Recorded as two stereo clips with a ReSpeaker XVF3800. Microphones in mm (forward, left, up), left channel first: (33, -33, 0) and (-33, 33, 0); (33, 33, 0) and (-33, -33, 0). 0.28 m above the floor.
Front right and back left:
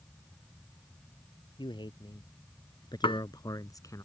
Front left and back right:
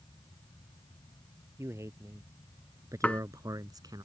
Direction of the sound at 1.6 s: 75° right.